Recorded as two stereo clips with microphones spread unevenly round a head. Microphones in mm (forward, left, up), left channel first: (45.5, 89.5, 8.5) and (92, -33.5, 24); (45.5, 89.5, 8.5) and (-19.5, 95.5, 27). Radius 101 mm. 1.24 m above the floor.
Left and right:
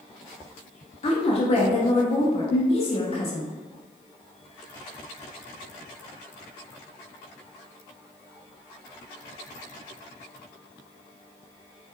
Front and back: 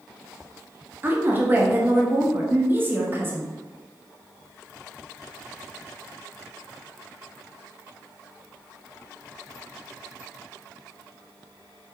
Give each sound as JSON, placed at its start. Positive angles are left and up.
{"t": 1.0, "sound": "a woman speaking", "azimuth_deg": 105, "distance_m": 0.6}